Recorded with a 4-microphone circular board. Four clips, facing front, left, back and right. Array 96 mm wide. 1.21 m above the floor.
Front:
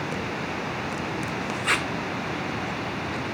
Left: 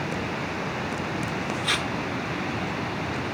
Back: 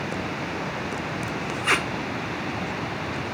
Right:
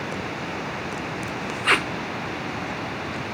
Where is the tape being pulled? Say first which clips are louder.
Right 9 dB, back 2 dB; 105° right, 0.6 m.